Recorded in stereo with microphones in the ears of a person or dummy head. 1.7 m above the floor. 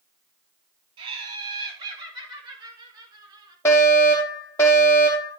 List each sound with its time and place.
1.0 s laughter: 30° right (ahead or behind), 4 m; by 3.5 s 25° right (ahead or behind), 5.5 m
3.6 s a fire alarm: 15° left (ahead or behind), 4 m